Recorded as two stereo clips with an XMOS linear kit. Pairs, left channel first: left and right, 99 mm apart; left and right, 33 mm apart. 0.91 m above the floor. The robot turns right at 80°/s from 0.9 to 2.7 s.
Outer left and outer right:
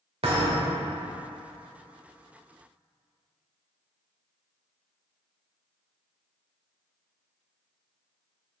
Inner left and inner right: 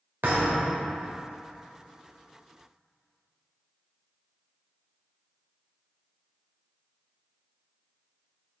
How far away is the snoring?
No snoring in this recording.